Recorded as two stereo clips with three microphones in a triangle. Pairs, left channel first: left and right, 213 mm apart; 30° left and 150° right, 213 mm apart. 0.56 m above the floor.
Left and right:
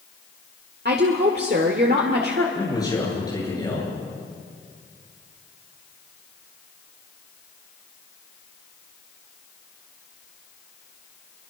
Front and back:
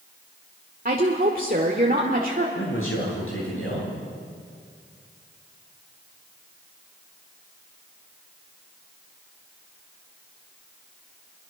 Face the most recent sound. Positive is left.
turn(degrees=15)